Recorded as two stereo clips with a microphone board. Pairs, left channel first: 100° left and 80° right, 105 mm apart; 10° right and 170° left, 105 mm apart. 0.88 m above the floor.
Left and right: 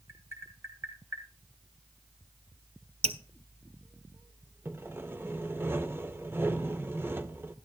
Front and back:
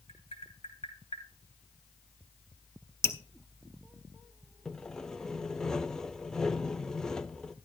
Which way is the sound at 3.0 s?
75° right.